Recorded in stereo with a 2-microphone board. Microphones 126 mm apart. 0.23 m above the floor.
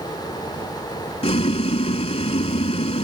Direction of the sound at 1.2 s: 55° left (ahead or behind).